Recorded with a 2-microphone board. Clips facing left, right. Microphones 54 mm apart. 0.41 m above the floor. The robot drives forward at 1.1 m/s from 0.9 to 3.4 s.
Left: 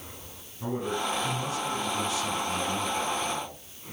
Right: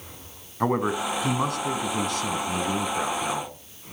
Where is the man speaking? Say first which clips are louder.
Right 6 dB; 75° right (ahead or behind), 4 m; by 3.5 s 50° right (ahead or behind), 5 m.